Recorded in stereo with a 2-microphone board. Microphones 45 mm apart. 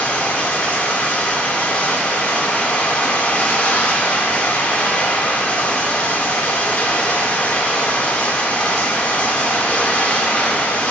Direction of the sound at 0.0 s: 25° left (ahead or behind).